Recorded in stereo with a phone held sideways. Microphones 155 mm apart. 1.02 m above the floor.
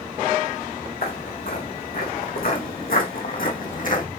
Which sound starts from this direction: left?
Footsteps, at 1.0 s.